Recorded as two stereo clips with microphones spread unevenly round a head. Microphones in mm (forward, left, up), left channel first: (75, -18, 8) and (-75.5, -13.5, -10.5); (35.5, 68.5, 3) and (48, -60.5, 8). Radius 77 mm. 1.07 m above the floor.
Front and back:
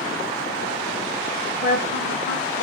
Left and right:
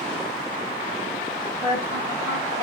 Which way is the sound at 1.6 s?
35° left.